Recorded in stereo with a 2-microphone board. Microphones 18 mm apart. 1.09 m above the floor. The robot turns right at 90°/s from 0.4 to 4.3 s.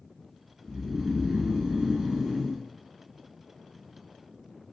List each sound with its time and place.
0.6 s snoring: 145° left, 1.0 m; by 2.6 s 40° right, 1.0 m